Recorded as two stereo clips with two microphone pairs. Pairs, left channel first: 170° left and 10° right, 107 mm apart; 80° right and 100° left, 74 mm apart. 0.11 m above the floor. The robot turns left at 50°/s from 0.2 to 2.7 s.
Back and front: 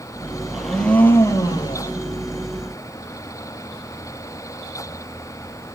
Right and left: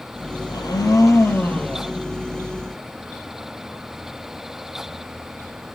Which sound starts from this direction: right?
A blender, at 0.5 s.